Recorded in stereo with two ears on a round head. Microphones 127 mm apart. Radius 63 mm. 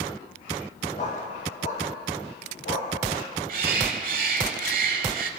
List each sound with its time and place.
1.0 s a dog barking: 55° left (ahead or behind), 9 m
3.5 s a bird: 65° right (ahead or behind), 1.5 m